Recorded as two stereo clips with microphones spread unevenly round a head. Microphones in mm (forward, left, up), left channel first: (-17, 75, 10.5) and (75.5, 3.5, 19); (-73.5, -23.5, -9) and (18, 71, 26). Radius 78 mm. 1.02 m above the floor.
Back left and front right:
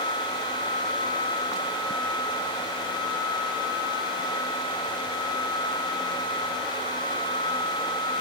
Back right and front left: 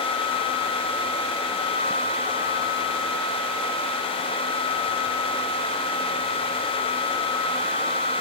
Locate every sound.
Only background noise.